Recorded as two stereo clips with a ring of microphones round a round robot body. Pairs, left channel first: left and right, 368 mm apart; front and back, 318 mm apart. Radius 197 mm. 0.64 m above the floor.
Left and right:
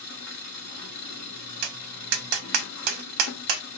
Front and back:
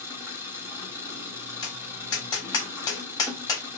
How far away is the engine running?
About 1.2 m.